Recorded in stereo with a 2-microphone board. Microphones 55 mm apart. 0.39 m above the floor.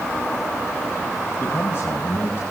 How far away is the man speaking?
About 1.8 m.